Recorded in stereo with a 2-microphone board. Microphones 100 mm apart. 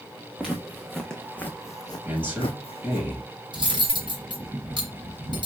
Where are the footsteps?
5° right (ahead or behind), 1.1 m; by 3.0 s 70° left (ahead or behind), 0.7 m.